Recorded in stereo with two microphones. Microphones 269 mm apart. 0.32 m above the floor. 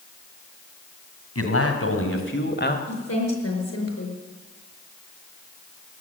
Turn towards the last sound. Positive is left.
turn(degrees=60)  # may be behind; listen again after turning